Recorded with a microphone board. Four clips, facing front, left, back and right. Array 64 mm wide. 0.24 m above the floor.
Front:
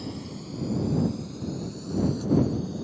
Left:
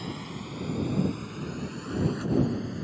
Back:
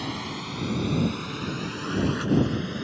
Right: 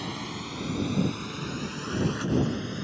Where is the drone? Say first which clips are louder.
Right 2 dB, back 4 dB; 160° right; by 2.8 s 155° right.